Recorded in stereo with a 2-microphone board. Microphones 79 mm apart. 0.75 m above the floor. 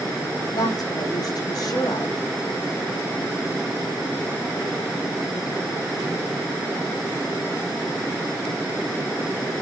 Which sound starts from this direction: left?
A woman speaking, at 0.5 s.